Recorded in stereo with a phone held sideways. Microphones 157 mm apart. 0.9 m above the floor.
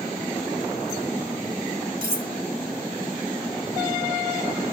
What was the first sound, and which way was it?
Cutlery clinking, 70° right (ahead or behind).